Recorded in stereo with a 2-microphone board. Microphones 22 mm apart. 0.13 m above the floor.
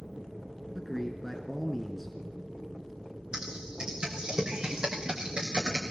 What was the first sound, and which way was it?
A man speaking, 10° left (ahead or behind).